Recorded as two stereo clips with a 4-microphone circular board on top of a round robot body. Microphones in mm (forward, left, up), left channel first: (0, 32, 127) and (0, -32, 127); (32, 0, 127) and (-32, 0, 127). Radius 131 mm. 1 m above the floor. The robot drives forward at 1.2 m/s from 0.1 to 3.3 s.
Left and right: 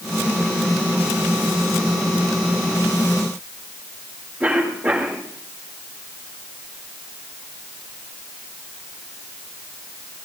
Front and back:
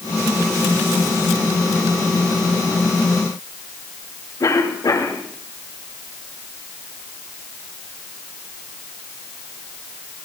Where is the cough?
30° right, 8 m.